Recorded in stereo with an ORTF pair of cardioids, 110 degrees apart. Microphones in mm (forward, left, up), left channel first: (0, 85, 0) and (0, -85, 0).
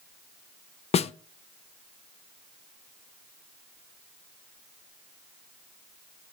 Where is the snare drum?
35° left, 0.6 m.